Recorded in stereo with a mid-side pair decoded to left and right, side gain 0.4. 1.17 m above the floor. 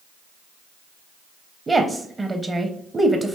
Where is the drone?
No drone in this recording.